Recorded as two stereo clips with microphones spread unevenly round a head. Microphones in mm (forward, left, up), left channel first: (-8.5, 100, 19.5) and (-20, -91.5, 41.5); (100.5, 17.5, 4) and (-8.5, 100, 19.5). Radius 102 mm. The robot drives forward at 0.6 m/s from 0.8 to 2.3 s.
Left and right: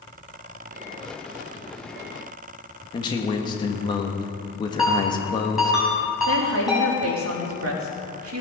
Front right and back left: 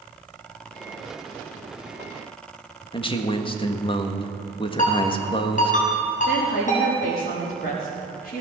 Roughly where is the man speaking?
Ahead.